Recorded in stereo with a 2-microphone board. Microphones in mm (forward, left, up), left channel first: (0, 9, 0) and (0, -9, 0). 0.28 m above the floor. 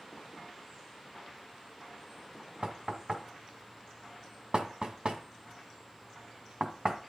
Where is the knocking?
50° right (ahead or behind), 1.8 m.